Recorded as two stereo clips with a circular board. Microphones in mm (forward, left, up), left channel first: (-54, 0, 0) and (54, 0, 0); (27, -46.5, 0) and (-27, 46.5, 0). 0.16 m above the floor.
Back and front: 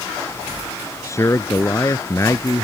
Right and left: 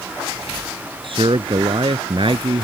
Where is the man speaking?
125° left.